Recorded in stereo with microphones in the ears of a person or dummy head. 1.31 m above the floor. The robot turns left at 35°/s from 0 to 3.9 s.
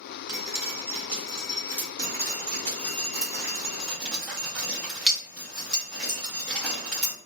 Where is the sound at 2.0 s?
55° right (ahead or behind), 1.1 m; by 7.1 s centre (ahead or behind), 1.1 m.